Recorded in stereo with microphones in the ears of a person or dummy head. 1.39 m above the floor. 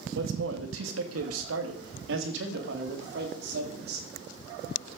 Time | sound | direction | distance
0.1 | a man speaking | 70° right (ahead or behind) | 1.9 m